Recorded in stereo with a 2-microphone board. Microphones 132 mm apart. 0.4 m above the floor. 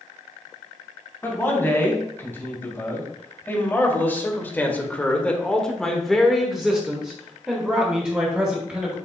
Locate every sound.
1.2 s a man speaking: 20° left (ahead or behind), 3 m; by 9.0 s 15° right (ahead or behind), 2 m